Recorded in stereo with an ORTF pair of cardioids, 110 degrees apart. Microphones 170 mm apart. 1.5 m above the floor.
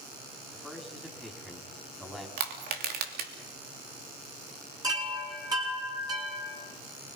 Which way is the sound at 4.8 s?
20° right.